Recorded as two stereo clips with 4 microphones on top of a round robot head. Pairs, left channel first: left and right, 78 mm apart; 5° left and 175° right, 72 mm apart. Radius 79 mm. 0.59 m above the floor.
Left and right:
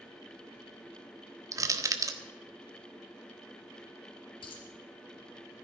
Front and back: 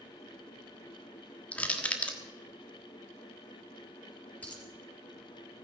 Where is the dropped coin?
75° left, 4 m.